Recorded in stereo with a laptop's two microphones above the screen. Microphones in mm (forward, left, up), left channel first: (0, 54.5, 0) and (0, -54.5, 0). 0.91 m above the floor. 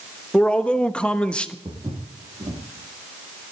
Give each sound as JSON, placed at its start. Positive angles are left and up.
{"t": 0.3, "sound": "a man speaking", "side_deg": 10, "distance_m": 1.3}
{"t": 1.6, "sound": "footsteps", "side_deg": -30, "distance_m": 5.0}